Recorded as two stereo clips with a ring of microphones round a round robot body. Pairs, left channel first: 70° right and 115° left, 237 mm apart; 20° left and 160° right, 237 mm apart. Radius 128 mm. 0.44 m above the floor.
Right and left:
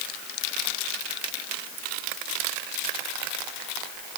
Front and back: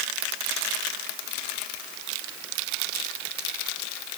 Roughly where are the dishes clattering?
No dishes clattering in this recording.